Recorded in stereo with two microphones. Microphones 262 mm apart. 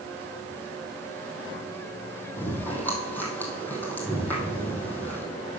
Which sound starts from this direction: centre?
Chewing, at 2.4 s.